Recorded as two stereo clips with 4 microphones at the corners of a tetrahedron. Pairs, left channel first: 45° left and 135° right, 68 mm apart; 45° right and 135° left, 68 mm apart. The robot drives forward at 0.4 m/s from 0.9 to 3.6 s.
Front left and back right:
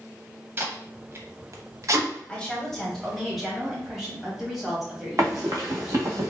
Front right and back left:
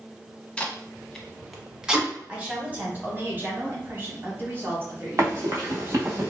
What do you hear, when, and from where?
0.6 s tape being pulled: 110° right, 0.6 m; by 2.1 s 150° right, 0.8 m
2.3 s a woman speaking: 90° left, 1.1 m; by 6.0 s 140° left, 1.2 m
5.2 s running footsteps: straight behind, 1.5 m; by 6.3 s 170° right, 1.0 m